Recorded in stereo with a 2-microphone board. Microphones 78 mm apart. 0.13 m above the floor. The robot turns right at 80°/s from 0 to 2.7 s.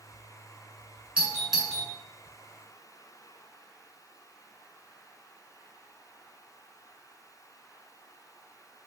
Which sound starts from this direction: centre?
A doorbell, at 1.2 s.